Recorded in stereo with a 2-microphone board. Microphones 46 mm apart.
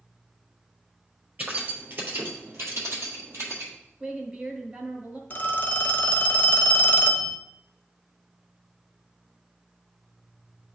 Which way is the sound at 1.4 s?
35° right (ahead or behind).